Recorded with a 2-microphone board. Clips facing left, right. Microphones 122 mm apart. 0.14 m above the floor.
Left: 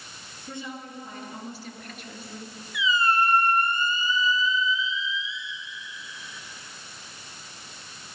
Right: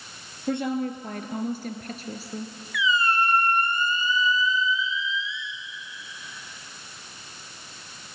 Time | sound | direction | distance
0.5 | a woman speaking | 65° right (ahead or behind) | 3 m
2.7 | a squeak | 25° left (ahead or behind) | 2 m